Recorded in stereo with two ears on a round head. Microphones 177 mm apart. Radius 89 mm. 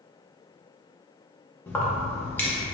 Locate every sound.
1.7 s keys jangling: 10° left (ahead or behind), 0.6 m